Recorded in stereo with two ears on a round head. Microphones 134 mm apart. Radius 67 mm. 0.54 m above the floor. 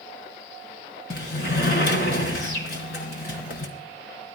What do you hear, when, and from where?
1.1 s a sliding door: 75° left (ahead or behind), 3 m